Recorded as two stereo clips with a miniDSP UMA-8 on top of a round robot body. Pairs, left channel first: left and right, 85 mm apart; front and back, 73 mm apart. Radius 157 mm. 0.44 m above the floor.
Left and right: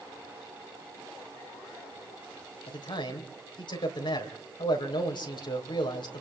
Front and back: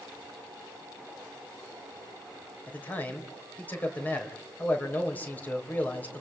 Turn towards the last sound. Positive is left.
turn(degrees=65)